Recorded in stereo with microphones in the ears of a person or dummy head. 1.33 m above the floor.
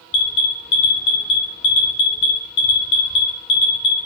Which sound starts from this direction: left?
An alarm, at 0.1 s.